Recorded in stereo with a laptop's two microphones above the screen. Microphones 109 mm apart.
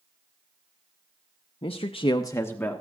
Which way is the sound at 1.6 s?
55° left (ahead or behind).